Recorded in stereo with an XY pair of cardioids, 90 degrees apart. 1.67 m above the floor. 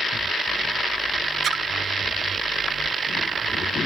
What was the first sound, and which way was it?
A splash, 55° right.